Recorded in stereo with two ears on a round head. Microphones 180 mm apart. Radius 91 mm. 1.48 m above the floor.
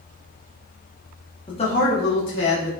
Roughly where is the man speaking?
Left.